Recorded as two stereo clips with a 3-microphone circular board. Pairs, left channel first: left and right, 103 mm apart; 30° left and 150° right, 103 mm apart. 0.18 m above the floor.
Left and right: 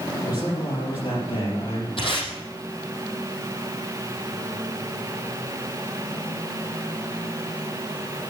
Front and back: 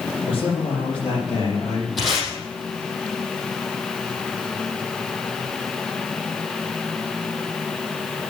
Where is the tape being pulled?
120° left, 4.5 m.